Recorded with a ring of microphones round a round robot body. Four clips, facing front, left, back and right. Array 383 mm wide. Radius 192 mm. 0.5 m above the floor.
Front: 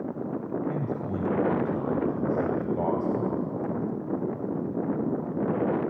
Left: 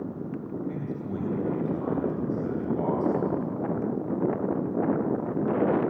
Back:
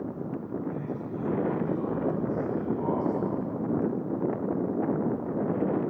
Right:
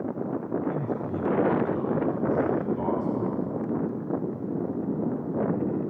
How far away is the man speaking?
About 3.5 m.